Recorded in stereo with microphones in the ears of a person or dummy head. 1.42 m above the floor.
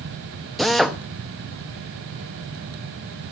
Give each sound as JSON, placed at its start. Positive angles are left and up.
{"t": 0.6, "sound": "a drill", "side_deg": 0, "distance_m": 1.1}